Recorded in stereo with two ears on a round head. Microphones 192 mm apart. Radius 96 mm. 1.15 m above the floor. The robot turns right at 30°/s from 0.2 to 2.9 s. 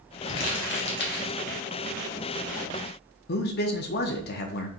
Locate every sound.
0.3 s crumpling: 60° left (ahead or behind), 1.1 m; by 1.4 s 45° left (ahead or behind), 1.1 m
3.3 s a man speaking: 50° left (ahead or behind), 0.6 m